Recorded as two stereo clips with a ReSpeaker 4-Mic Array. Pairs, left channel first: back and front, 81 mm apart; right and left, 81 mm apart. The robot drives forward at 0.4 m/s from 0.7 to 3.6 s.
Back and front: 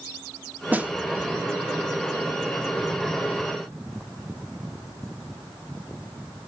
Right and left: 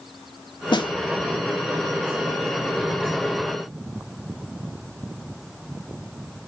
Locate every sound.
0.7 s a snare drum: 70° right, 1.4 m